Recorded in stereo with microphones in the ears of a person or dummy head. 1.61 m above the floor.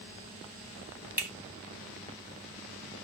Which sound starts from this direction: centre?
A finger snap, at 1.2 s.